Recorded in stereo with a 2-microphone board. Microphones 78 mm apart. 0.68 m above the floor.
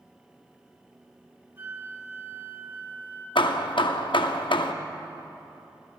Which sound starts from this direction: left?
Hammering, at 3.4 s.